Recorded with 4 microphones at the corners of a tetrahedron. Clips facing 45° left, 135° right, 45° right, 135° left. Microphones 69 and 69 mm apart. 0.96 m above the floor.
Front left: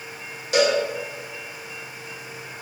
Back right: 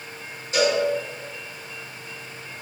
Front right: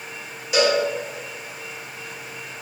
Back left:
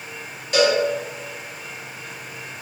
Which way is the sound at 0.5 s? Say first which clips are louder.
Front left 2 dB, back left 1 dB; 40° left.